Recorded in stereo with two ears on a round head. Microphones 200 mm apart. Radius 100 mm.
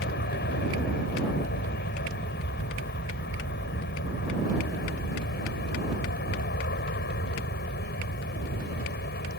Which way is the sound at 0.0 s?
50° left (ahead or behind).